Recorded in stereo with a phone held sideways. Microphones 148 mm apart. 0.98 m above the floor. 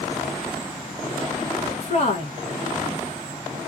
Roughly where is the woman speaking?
Left.